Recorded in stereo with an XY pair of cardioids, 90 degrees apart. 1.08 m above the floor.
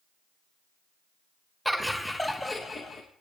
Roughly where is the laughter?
Ahead.